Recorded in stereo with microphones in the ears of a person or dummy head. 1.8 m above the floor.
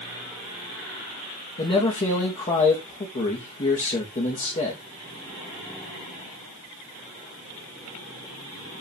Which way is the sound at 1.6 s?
30° left (ahead or behind).